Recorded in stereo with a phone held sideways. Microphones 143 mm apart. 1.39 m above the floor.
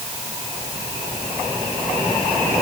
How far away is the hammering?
No hammering in this recording.